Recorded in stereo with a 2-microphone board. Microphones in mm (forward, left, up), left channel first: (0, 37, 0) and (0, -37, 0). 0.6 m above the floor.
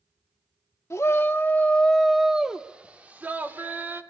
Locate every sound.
0.9 s a shout: 40° left (ahead or behind), 0.8 m; by 4.0 s 25° right (ahead or behind), 1.7 m